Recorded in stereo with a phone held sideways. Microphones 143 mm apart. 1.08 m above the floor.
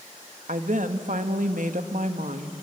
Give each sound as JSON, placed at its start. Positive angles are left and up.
{"t": 0.5, "sound": "a woman speaking", "side_deg": -65, "distance_m": 1.3}